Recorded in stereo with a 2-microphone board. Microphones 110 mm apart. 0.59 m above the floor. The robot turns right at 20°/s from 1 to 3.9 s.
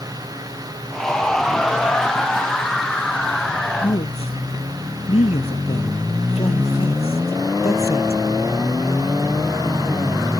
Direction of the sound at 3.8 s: 75° left (ahead or behind).